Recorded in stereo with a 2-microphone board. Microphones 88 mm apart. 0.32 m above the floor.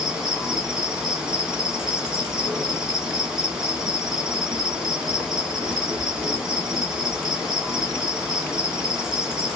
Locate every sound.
0.0 s an insect: 10° right (ahead or behind), 0.9 m